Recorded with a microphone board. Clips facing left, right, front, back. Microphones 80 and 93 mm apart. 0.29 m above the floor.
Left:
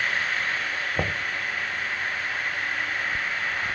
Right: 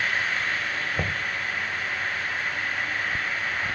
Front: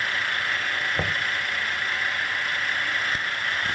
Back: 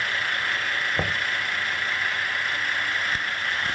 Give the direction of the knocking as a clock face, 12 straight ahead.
8 o'clock.